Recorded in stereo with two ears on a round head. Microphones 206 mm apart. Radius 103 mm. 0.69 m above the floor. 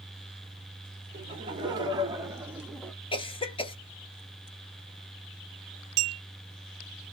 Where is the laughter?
25° right (ahead or behind), 1.9 m; by 2.9 s 5° left (ahead or behind), 0.6 m.